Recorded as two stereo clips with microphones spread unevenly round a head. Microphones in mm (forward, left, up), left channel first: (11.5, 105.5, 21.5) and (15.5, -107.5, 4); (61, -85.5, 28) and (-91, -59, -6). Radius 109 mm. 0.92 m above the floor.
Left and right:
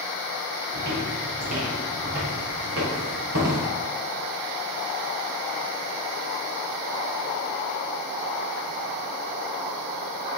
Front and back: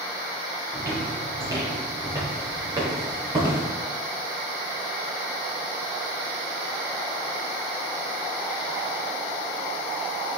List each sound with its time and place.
0.7 s footsteps: 115° right, 4.5 m; by 3.6 s 120° right, 7 m